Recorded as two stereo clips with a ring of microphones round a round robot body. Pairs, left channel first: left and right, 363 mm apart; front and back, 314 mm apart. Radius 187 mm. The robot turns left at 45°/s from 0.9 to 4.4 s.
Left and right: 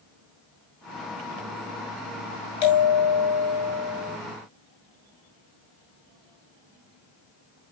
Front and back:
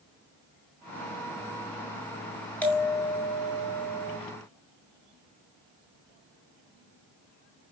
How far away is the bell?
About 6.5 m.